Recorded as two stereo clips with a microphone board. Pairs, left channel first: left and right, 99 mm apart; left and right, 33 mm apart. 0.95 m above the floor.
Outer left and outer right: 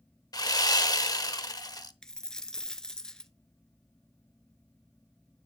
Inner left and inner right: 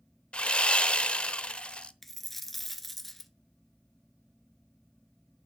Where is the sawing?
40° left (ahead or behind), 0.8 m.